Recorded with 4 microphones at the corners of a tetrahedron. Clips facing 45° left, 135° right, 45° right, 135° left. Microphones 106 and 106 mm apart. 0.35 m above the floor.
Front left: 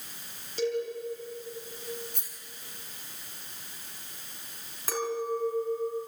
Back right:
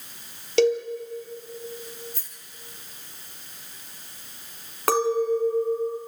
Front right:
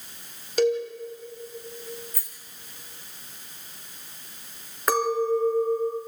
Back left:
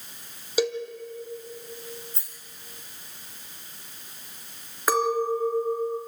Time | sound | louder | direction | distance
0.6 | a cowbell | back right 9 dB, front right 4 dB | 140° right | 3 m
2.1 | a rattle | even, front right 3 dB | 70° left | 3.5 m
4.9 | a clink | back right 9 dB, front right 1 dB | 140° right | 3 m